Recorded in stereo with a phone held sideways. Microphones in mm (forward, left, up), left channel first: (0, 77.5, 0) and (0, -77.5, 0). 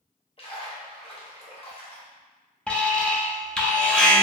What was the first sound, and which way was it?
A splash, 40° left (ahead or behind).